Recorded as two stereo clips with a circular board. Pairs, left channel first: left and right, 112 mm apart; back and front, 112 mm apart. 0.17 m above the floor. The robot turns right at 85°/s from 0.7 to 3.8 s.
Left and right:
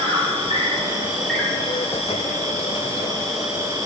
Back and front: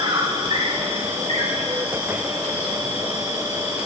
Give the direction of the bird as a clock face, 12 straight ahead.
I don't hear a bird.